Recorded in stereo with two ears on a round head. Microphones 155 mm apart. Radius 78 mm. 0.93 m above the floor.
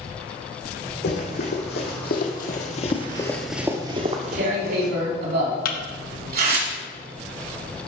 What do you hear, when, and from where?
1.0 s running footsteps: 75° left (ahead or behind), 3.5 m; by 4.9 s 60° right (ahead or behind), 2 m
4.0 s tearing paper: 65° right (ahead or behind), 2.5 m
5.7 s a thud: 55° left (ahead or behind), 1.2 m